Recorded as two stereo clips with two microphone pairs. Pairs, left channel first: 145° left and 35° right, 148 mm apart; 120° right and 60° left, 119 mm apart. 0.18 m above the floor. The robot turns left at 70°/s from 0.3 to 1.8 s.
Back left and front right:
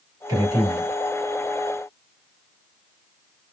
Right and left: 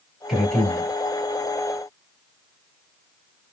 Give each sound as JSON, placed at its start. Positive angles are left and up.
{"t": 0.3, "sound": "a man speaking", "azimuth_deg": -30, "distance_m": 1.3}